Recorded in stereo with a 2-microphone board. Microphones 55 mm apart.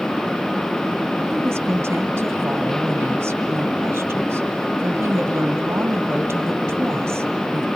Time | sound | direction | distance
1.3 | a woman speaking | 50° right (ahead or behind) | 2 m